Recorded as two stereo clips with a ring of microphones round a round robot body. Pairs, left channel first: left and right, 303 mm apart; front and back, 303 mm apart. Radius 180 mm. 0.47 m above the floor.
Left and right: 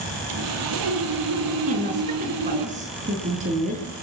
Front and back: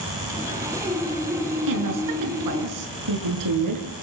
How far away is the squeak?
I don't hear a squeak.